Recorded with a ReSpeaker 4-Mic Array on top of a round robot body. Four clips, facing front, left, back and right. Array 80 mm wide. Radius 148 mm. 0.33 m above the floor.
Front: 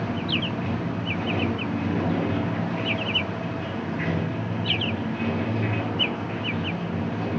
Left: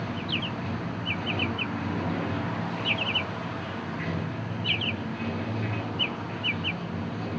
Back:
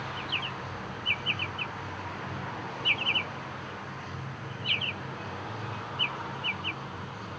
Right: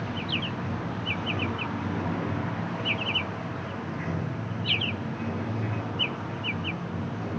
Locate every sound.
0.0 s running water: 10° left